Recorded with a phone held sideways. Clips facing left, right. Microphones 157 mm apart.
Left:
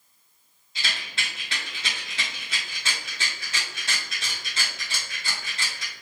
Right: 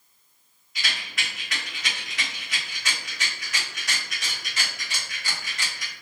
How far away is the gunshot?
I don't hear a gunshot.